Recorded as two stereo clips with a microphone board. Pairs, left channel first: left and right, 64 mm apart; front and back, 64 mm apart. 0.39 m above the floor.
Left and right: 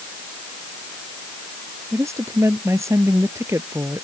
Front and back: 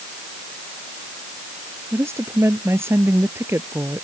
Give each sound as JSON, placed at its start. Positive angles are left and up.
{"t": 1.9, "sound": "a woman speaking", "azimuth_deg": -130}